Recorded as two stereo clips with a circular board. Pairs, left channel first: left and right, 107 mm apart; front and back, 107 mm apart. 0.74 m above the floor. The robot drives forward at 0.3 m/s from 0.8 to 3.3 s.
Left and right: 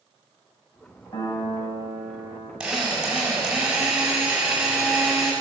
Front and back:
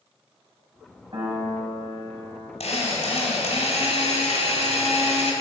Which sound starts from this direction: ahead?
A drill, at 2.6 s.